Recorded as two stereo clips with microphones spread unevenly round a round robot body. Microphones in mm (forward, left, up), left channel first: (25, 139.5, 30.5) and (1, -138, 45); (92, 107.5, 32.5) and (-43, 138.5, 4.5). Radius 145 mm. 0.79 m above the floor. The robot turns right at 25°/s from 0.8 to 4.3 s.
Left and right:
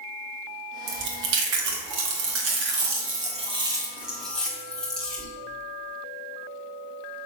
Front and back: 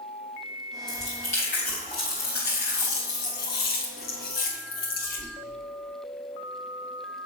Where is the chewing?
90° right, 1.4 m; by 5.3 s straight ahead, 1.4 m.